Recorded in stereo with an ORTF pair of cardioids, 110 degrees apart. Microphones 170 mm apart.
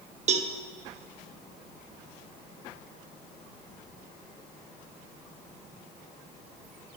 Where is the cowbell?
45° right, 0.9 m.